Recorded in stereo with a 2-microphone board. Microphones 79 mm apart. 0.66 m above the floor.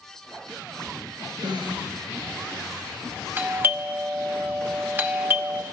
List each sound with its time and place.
1.4 s a snare drum: 75° right (ahead or behind), 6.5 m
3.4 s a doorbell: 25° right (ahead or behind), 1.0 m